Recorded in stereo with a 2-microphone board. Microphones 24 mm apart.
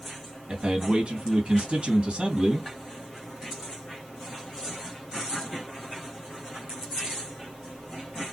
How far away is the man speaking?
About 2 m.